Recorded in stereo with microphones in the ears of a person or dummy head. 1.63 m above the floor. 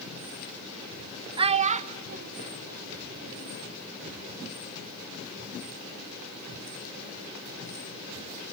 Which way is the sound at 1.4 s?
35° right (ahead or behind).